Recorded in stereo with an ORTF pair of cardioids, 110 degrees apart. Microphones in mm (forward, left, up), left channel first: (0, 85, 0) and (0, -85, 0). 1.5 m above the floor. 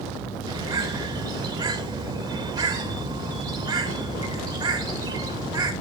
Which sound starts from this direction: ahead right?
A bird, at 0.5 s.